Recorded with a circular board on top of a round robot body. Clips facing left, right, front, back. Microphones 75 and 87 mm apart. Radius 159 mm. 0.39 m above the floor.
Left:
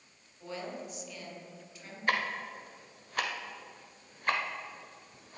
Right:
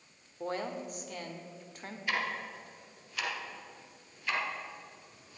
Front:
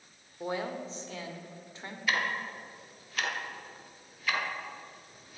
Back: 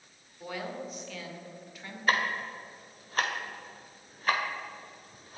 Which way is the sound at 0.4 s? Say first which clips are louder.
Right 4 dB, front 3 dB; 55° right.